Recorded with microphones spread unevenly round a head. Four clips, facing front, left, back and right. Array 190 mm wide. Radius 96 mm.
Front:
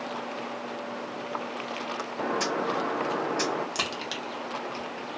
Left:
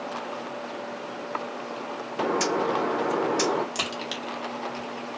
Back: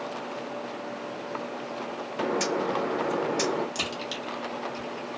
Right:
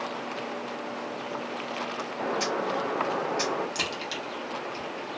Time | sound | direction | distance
2.2 | a bird | 120° left | 0.5 m
3.8 | a crack | 5° left | 0.8 m